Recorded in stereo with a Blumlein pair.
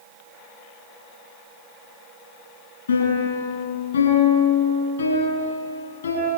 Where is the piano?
70° left, 10 m.